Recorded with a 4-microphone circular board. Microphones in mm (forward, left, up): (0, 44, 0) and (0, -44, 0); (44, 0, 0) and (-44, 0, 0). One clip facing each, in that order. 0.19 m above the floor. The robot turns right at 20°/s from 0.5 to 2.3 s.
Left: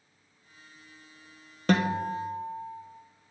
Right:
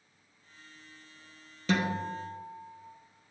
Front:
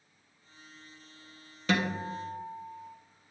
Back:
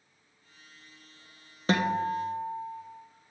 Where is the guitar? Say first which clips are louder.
Left 4 dB, back 4 dB; 125° left, 1.2 m; by 2.8 s 135° left, 1.2 m.